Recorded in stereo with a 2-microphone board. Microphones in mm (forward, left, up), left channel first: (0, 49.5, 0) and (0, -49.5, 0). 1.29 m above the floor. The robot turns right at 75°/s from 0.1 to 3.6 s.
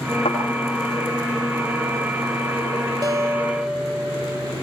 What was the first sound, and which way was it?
A thud, 75° left (ahead or behind).